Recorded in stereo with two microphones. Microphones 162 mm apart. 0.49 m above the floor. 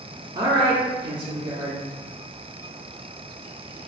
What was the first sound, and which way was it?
A woman speaking, 30° right (ahead or behind).